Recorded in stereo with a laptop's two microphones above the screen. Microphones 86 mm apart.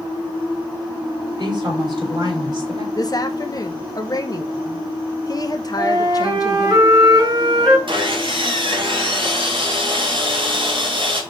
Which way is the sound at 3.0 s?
45° left (ahead or behind).